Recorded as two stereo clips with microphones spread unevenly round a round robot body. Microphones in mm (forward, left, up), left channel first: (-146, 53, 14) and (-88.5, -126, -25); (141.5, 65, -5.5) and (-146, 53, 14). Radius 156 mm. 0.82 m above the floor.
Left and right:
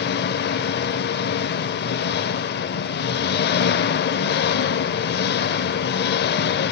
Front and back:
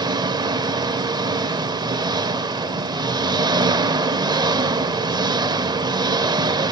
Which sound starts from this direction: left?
An engine running, at 0.0 s.